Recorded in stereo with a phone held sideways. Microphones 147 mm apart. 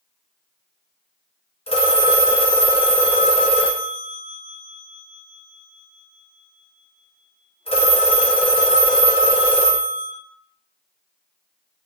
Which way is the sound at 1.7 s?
40° left (ahead or behind).